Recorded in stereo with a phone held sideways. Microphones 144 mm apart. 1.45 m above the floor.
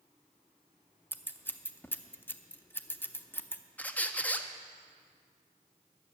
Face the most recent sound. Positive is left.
turn(degrees=10)  # may be behind; listen again after turning